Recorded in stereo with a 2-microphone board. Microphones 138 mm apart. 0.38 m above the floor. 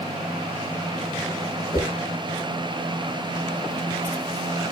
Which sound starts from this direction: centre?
A whoosh, at 1.7 s.